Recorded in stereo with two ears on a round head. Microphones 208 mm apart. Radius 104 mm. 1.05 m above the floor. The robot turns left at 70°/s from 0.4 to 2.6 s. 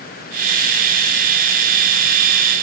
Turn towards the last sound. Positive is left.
No sound to turn to.